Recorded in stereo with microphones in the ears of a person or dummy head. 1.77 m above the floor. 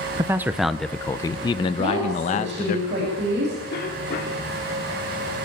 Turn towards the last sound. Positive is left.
turn(degrees=50)  # may be behind; listen again after turning